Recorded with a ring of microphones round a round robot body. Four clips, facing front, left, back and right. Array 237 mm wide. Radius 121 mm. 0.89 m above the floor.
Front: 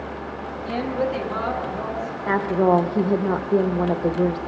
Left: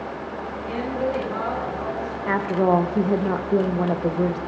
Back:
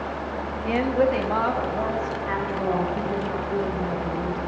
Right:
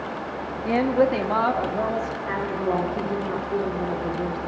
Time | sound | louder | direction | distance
0.7 | a woman speaking | right 6 dB, back 3 dB | 100° right | 1.0 m
2.3 | a woman speaking | left 8 dB, front 10 dB | 40° left | 0.7 m